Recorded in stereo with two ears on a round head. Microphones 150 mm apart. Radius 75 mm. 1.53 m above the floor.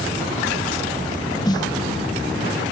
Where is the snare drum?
25° left (ahead or behind), 1.2 m.